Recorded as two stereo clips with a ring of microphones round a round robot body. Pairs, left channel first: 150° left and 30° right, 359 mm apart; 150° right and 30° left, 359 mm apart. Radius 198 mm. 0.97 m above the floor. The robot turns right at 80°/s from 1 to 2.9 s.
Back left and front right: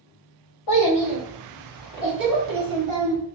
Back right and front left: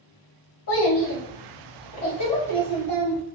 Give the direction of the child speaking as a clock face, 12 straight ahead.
6 o'clock.